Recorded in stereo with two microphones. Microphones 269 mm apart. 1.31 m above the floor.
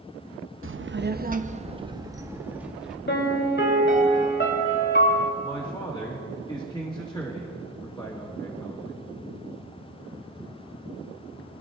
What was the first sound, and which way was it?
A child speaking, 50° right (ahead or behind).